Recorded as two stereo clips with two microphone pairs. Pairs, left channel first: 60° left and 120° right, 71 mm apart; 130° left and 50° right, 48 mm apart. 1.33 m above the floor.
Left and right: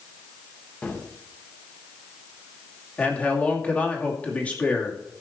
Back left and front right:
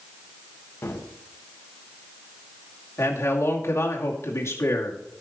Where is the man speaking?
130° left, 2.5 m.